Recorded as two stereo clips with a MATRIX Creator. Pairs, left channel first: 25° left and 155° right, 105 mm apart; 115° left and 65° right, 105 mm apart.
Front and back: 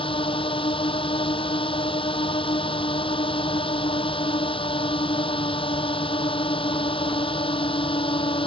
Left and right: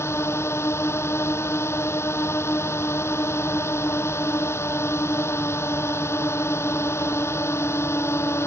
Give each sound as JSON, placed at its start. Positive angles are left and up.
{"t": 0.0, "sound": "a drone", "azimuth_deg": 50}